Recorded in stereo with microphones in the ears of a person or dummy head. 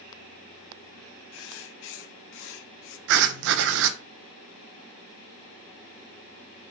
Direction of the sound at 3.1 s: 65° right (ahead or behind).